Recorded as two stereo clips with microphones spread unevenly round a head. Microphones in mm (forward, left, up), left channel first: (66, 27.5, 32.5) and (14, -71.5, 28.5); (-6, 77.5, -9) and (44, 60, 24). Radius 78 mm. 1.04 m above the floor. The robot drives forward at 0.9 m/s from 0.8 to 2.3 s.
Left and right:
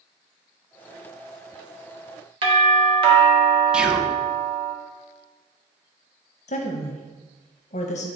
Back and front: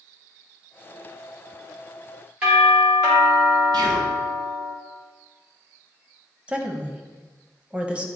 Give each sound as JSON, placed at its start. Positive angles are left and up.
{"t": 2.4, "sound": "a doorbell", "azimuth_deg": -125, "distance_m": 1.8}
{"t": 3.7, "sound": "whispering", "azimuth_deg": -35, "distance_m": 0.7}
{"t": 6.5, "sound": "a woman speaking", "azimuth_deg": 65, "distance_m": 0.8}